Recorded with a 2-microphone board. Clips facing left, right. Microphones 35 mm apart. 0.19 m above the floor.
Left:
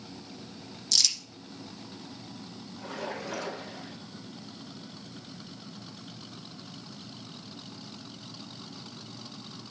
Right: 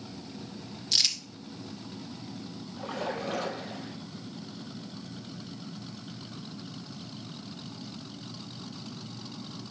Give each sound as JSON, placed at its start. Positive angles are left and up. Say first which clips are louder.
{"t": 0.9, "sound": "crumpling", "louder": "even", "side_deg": -25, "distance_m": 1.6}
{"t": 2.8, "sound": "a splash", "louder": "right 3 dB", "side_deg": -40, "distance_m": 3.5}